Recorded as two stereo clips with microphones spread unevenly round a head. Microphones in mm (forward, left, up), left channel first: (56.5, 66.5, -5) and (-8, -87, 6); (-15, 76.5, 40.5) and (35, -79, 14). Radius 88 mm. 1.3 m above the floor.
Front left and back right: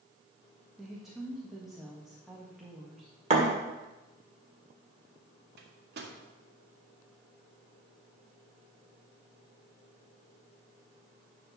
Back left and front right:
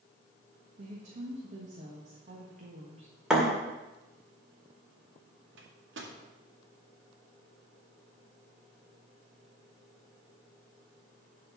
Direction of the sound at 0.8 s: 25° right.